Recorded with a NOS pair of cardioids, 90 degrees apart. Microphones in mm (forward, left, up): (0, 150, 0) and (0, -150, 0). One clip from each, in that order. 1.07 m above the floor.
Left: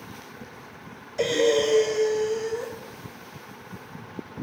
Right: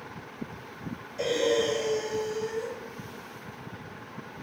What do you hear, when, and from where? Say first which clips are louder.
1.2 s breathing: left 4 dB; 45° left, 0.7 m